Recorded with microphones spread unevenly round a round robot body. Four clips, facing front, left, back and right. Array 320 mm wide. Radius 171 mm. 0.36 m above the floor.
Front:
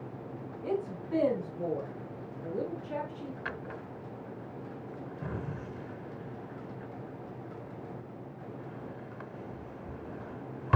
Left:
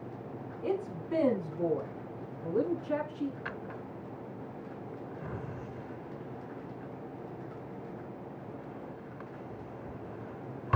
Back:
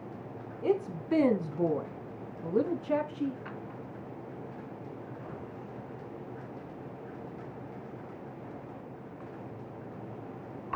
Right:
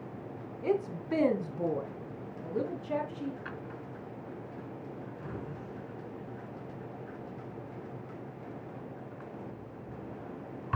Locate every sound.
0.6 s a woman speaking: 160° right, 4 m; by 3.4 s 165° left, 5 m
3.5 s a drawer: 15° left, 1.5 m